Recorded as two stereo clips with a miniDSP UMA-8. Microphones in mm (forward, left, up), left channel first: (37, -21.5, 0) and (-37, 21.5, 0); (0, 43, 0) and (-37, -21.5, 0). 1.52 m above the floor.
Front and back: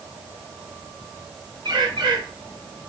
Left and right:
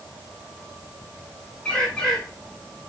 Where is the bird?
135° left, 5.5 m.